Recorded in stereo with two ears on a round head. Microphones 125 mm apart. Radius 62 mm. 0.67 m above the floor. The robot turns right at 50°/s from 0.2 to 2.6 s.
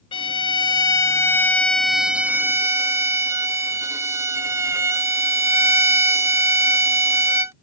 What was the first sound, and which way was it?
A violin, 95° left.